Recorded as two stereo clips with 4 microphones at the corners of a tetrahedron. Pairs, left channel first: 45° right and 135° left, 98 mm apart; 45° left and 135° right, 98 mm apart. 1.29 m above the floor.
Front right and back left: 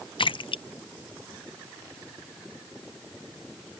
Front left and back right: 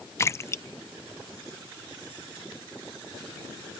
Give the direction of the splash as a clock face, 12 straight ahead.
1 o'clock.